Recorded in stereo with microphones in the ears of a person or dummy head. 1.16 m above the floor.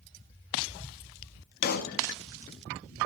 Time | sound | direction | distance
1.6 | a pop | 50° left (ahead or behind) | 1.4 m